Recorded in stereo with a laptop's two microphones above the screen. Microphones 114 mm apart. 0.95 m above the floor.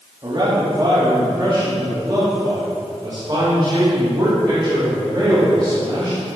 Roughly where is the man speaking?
Right.